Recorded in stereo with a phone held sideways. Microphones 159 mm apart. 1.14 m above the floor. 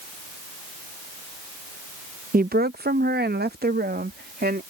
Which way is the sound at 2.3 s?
65° right (ahead or behind).